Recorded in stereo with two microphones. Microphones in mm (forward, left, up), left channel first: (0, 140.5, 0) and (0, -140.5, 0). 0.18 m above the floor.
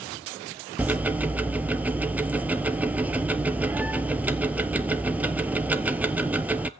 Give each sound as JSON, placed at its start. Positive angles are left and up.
{"t": 0.8, "sound": "ticking", "side_deg": -5, "distance_m": 0.5}